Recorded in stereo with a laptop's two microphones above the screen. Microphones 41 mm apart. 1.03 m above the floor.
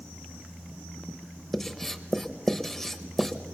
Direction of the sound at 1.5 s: 5° left (ahead or behind).